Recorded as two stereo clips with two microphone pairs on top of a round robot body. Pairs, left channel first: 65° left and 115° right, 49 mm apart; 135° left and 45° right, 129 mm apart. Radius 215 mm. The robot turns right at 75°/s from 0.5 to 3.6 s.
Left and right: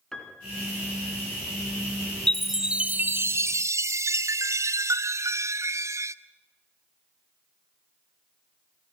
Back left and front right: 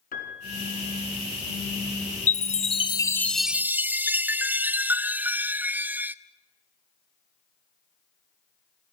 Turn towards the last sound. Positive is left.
turn(degrees=-120)